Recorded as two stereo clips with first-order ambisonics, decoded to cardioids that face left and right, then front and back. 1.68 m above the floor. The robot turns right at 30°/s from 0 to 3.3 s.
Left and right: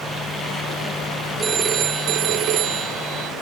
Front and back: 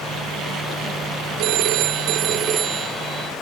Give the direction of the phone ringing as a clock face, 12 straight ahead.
5 o'clock.